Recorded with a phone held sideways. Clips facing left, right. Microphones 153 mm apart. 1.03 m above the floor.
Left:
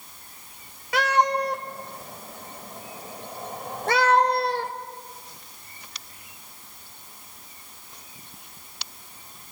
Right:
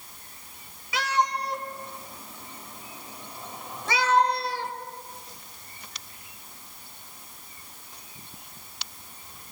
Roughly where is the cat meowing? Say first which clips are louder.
Left 5 dB; left.